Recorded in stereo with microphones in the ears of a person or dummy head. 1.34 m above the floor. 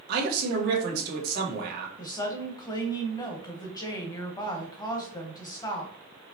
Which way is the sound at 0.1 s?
55° right (ahead or behind).